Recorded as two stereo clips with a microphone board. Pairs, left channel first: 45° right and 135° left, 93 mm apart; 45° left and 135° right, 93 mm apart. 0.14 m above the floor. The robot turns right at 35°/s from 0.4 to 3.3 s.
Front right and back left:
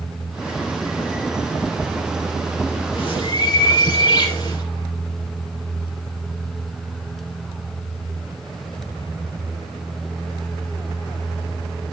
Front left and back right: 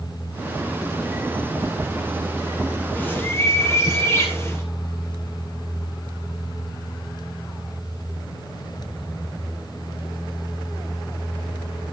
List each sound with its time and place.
3.0 s a bird: 25° right, 2.5 m; by 4.7 s 15° right, 2.5 m